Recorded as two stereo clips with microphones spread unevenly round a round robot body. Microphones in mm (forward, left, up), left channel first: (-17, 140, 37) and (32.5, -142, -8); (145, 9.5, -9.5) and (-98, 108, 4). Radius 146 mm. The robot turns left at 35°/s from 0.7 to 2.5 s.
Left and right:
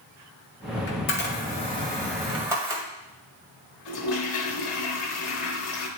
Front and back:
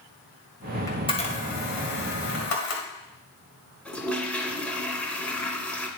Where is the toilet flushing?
65° left, 1.9 m.